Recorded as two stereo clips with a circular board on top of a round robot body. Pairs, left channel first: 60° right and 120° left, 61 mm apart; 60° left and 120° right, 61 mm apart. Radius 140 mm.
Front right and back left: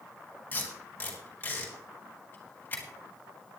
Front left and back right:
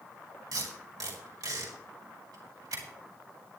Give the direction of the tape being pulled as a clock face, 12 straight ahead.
4 o'clock.